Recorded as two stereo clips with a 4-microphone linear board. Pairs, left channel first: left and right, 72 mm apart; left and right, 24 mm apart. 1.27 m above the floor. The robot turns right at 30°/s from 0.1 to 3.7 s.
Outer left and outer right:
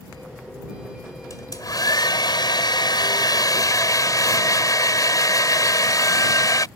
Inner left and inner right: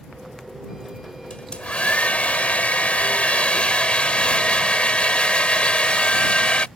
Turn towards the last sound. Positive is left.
turn(degrees=125)